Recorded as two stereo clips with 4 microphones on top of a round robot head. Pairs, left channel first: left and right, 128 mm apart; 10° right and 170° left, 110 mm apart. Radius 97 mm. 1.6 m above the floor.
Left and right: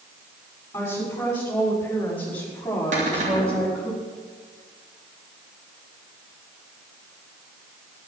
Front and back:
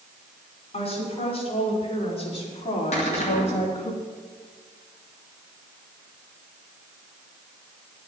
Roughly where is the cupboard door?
Ahead right.